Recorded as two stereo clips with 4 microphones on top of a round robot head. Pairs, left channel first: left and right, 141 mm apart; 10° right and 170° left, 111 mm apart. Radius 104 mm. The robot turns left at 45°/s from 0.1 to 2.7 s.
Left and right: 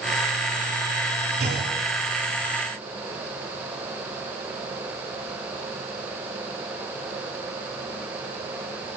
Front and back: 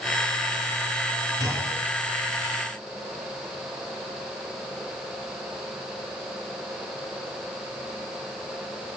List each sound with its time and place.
1.4 s a clunk: 70° right, 6.5 m; by 1.8 s 90° right, 6.5 m